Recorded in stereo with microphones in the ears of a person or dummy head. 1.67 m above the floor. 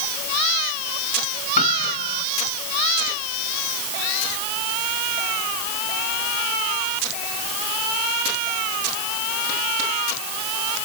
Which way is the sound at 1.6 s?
45° left (ahead or behind).